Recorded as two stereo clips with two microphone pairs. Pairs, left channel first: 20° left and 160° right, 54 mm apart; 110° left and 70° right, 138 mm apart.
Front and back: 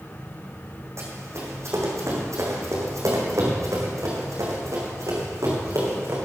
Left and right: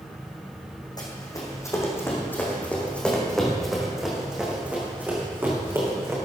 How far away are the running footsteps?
About 4 m.